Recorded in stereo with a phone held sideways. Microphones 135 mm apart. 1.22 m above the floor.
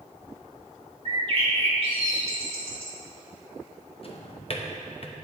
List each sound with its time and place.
1.1 s a bird: 45° right (ahead or behind), 1.2 m
4.0 s a drawer: 45° left (ahead or behind), 0.6 m